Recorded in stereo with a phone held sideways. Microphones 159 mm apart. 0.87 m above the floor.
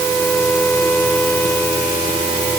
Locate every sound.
Only background noise.